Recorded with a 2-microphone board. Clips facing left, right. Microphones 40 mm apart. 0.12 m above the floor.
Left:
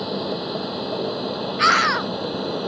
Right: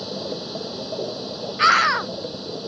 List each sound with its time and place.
0.0 s an aircraft: 25° left (ahead or behind); by 2.7 s 35° left (ahead or behind)
1.6 s a scream: 5° right (ahead or behind)